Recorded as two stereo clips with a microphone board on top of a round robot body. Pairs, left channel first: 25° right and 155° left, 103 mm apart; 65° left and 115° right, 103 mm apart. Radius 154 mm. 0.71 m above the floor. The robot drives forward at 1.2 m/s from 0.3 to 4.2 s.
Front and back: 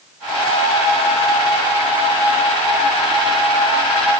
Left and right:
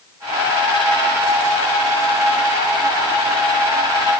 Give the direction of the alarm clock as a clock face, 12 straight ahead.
No alarm clock in this recording.